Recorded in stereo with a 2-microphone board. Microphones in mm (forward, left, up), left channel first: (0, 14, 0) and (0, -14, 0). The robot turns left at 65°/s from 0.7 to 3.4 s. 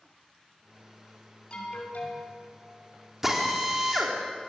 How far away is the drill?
About 3.5 m.